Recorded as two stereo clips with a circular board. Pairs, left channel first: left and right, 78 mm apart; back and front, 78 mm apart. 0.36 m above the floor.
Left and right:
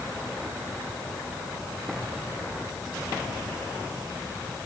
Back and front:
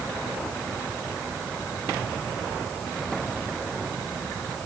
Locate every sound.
Only background noise.